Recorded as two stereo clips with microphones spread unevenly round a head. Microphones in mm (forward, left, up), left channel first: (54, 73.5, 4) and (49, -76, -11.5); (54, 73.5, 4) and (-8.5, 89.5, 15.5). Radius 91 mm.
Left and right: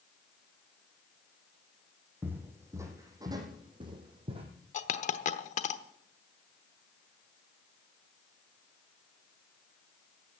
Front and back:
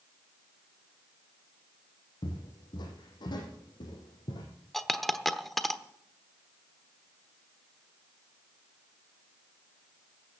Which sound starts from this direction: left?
A dropped coin, at 4.7 s.